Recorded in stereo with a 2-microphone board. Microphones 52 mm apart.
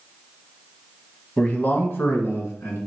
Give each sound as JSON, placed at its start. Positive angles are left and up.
{"t": 1.4, "sound": "a man speaking", "side_deg": 25, "distance_m": 1.2}